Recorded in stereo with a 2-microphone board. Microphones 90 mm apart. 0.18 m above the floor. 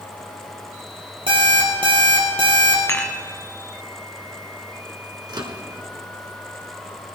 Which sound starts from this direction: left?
Dishes clattering, at 2.9 s.